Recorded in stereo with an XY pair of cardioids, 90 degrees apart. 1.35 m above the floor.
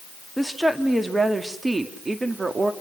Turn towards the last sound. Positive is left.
turn(degrees=-40)